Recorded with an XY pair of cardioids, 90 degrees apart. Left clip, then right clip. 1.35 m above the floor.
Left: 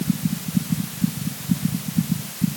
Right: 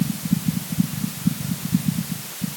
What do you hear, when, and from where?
Only background noise.